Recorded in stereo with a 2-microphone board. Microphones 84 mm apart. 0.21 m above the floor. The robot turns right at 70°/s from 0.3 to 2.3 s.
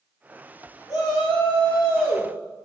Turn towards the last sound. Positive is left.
turn(degrees=145)